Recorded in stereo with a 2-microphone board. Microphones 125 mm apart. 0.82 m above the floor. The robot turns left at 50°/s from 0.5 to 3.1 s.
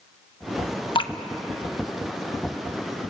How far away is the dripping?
About 0.6 m.